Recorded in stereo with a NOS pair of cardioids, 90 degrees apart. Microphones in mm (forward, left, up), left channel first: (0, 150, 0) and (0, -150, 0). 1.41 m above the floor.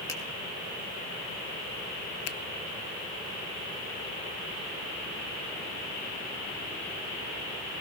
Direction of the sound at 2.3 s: 55° left.